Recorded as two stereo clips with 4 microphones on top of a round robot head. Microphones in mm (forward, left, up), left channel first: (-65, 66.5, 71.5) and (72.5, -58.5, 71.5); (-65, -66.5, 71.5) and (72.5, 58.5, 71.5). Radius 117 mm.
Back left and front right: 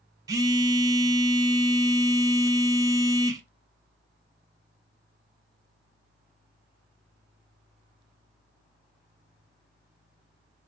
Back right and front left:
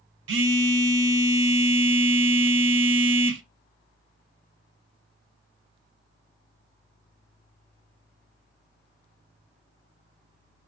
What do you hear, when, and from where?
0.3 s a phone buzzing: 30° left, 0.7 m